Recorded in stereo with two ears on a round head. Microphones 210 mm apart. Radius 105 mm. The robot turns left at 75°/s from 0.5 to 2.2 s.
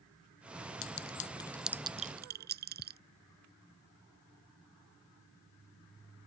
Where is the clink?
60° left (ahead or behind); by 3.0 s 45° right (ahead or behind).